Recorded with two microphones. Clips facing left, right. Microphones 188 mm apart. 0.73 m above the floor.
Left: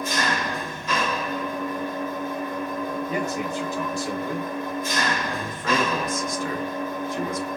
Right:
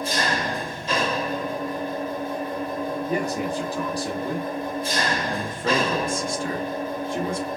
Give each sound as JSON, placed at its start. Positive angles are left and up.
{"t": 0.0, "sound": "an engine running", "side_deg": -30, "distance_m": 0.8}
{"t": 3.1, "sound": "a man speaking", "side_deg": -35, "distance_m": 1.2}
{"t": 5.3, "sound": "a man speaking", "side_deg": -30, "distance_m": 1.4}